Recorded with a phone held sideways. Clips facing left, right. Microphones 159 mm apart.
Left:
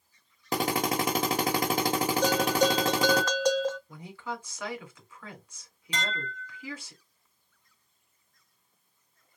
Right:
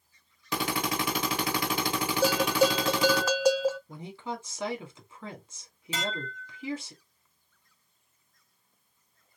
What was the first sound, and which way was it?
A drill, 45° left (ahead or behind).